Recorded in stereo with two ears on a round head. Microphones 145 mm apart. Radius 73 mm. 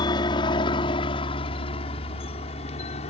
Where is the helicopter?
25° left (ahead or behind); by 3.1 s 40° left (ahead or behind).